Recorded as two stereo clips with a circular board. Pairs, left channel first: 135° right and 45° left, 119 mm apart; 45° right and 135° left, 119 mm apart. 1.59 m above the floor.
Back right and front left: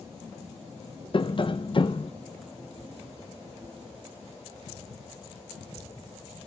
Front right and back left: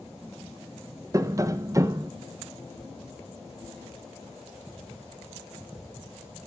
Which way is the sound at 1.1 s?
165° right.